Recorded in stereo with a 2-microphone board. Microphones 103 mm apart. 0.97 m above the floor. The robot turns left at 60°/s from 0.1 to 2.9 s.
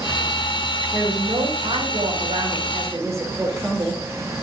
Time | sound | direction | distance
0.9 | a woman speaking | 35° right | 2.5 m